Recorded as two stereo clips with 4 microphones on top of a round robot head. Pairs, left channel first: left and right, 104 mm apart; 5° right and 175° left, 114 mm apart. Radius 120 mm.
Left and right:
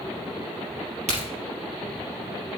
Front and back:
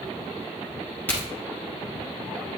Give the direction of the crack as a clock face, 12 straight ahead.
3 o'clock.